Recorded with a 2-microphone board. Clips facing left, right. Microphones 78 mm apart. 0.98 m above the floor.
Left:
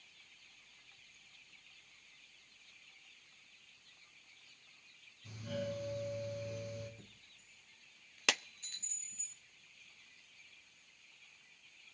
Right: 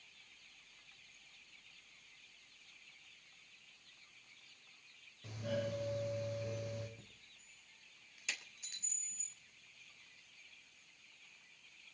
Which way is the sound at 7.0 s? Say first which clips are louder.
Left 1 dB; 10° right (ahead or behind).